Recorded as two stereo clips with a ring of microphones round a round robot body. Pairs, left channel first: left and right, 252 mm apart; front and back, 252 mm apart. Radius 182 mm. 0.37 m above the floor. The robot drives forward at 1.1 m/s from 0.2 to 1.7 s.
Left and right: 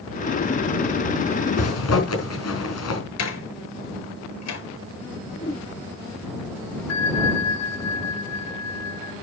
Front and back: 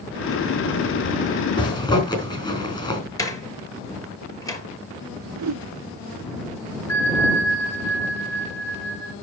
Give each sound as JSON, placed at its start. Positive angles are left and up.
{"t": 1.6, "sound": "a zipper", "azimuth_deg": 70, "distance_m": 5.0}
{"t": 3.2, "sound": "a door slam", "azimuth_deg": 75, "distance_m": 6.5}
{"t": 5.4, "sound": "a whoosh", "azimuth_deg": 165, "distance_m": 0.9}
{"t": 6.9, "sound": "a bell", "azimuth_deg": 80, "distance_m": 6.5}